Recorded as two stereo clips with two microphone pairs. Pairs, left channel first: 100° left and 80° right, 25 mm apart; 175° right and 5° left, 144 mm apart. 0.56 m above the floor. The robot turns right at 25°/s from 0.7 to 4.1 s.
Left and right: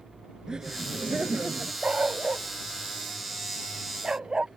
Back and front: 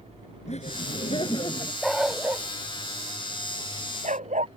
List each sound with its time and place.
0.5 s laughter: 135° right; by 1.7 s 110° right
1.8 s a dog barking: 85° right; by 4.5 s 25° right